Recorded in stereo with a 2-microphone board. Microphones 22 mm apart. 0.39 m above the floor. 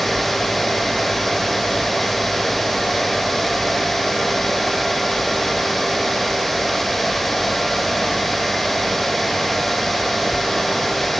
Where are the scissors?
I don't hear scissors.